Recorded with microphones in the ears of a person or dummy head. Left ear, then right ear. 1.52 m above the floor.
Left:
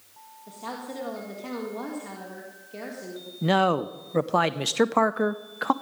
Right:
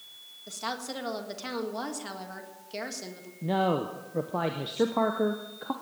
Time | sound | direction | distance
0.5 | a woman speaking | 50° right (ahead or behind) | 1.7 m
3.4 | a man speaking | 55° left (ahead or behind) | 0.5 m